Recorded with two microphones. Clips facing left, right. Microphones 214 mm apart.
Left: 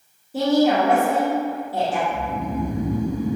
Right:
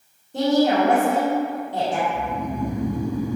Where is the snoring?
25° left (ahead or behind), 0.6 m.